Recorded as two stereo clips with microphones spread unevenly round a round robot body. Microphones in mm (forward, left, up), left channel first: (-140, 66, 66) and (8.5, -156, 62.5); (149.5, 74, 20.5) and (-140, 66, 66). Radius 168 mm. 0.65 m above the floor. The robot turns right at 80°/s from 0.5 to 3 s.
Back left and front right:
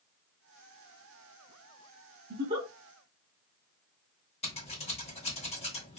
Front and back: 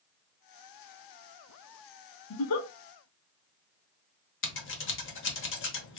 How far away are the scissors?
About 1.1 m.